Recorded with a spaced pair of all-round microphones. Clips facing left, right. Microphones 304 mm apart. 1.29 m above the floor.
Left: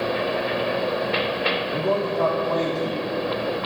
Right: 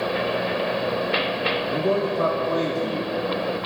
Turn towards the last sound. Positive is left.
turn(degrees=-20)  # may be behind; listen again after turning